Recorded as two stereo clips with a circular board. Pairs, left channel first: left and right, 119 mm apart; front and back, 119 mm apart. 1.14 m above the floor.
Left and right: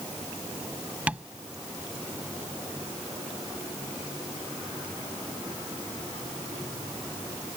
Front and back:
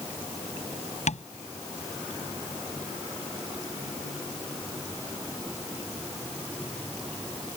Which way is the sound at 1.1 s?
10° right.